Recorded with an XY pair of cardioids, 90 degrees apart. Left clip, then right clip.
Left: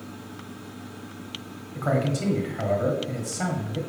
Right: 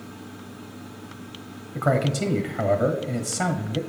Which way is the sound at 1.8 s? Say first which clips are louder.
Right 3 dB; 55° right.